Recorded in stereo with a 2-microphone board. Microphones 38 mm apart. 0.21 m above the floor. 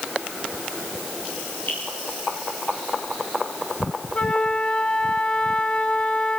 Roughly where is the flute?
Left.